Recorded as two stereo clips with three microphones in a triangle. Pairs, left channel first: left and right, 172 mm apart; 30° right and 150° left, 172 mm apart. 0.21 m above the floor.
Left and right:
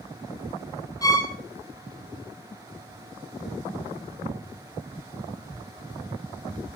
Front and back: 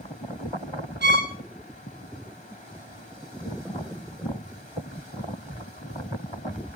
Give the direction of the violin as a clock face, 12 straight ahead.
7 o'clock.